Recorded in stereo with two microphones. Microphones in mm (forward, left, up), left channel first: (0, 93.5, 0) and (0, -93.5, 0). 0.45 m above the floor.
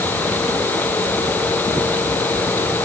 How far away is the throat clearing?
No throat clearing in this recording.